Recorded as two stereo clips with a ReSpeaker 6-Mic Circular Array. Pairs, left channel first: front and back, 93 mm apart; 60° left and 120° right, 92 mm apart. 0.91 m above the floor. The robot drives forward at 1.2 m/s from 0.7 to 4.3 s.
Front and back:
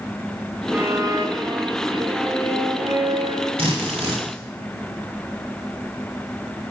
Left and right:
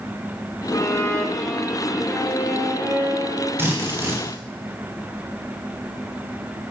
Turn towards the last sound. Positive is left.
turn(degrees=175)